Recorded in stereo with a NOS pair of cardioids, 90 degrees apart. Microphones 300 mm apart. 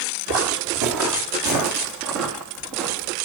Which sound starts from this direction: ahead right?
Footsteps, at 0.3 s.